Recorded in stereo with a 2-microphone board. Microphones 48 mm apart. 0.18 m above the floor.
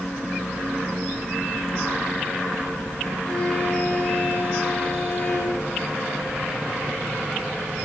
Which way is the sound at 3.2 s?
20° left (ahead or behind).